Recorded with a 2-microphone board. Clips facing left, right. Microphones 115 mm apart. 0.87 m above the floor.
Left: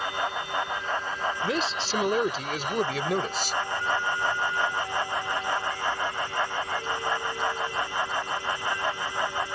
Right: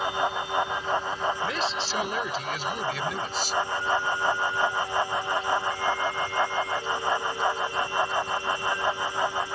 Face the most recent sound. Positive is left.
turn(degrees=55)  # may be behind; listen again after turning